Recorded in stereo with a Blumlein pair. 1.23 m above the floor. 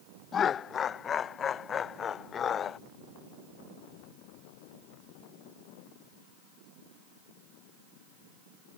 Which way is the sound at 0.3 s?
25° left.